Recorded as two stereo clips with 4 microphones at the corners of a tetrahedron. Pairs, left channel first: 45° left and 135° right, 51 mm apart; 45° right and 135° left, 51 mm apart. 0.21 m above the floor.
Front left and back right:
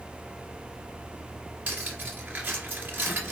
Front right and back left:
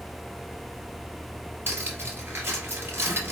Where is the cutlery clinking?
170° left, 2 m.